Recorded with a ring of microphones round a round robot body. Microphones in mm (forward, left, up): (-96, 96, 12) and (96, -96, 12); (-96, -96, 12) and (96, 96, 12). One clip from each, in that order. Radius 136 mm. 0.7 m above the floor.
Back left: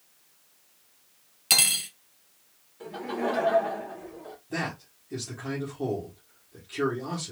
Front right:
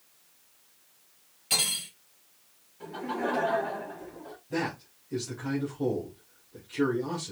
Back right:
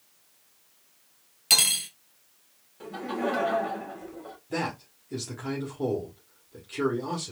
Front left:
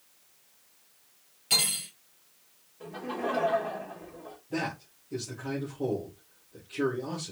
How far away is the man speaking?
About 1.5 m.